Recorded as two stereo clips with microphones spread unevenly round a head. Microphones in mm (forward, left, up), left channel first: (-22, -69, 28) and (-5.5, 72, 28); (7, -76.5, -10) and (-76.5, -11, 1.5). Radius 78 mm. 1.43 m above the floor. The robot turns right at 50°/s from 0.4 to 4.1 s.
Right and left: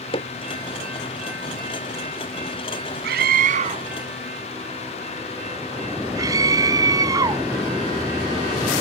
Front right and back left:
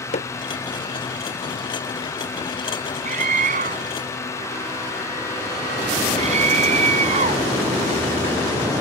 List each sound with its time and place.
0.1 s hammering: 40° right
3.0 s a scream: 95° left; by 7.5 s 150° left